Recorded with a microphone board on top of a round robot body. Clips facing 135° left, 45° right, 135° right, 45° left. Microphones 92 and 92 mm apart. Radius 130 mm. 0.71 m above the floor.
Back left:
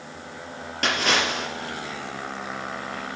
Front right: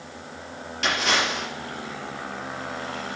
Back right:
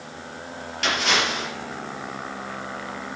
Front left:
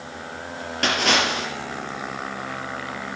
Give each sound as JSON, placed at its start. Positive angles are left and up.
{"t": 0.8, "sound": "a splash", "azimuth_deg": 90, "distance_m": 4.0}